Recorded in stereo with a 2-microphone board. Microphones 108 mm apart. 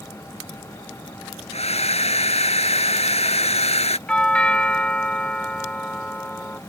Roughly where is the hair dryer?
Left.